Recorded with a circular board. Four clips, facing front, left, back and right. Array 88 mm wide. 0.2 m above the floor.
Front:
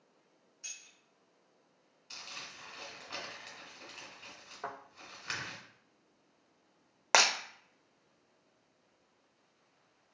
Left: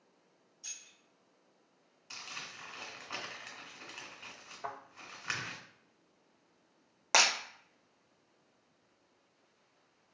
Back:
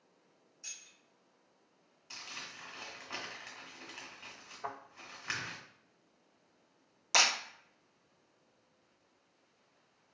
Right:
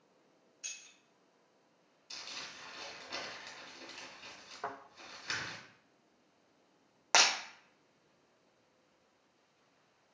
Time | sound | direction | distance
0.6 | keys jangling | 75° right | 1.2 m
2.1 | crumpling | 115° left | 1.5 m
4.6 | a thud | 50° right | 1.9 m
7.1 | breaking glass | straight ahead | 0.7 m